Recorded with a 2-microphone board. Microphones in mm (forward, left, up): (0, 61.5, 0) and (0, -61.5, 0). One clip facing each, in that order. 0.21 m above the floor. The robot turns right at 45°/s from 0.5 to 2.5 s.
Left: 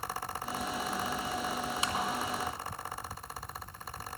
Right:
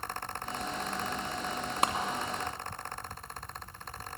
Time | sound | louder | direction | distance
1.8 | a clap | right 10 dB | 60° right (ahead or behind) | 2.5 m